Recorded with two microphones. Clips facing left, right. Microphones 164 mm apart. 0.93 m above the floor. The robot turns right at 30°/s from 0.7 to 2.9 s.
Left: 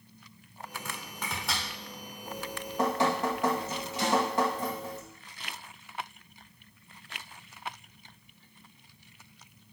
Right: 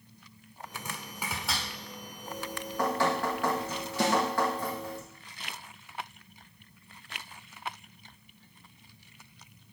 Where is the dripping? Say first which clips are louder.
Even; 35° left (ahead or behind), 1.2 m; by 5.0 s 20° left (ahead or behind), 1.2 m.